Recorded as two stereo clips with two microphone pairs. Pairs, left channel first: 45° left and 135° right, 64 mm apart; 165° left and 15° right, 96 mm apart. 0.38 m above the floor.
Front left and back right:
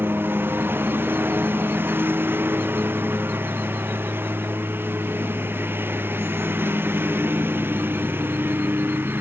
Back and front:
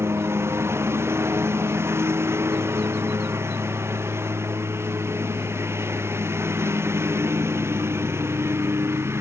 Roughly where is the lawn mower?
Right.